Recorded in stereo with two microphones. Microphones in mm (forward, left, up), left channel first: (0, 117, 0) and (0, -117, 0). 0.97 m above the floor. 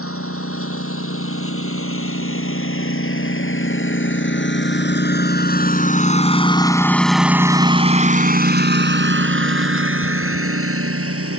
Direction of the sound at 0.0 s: 70° left (ahead or behind).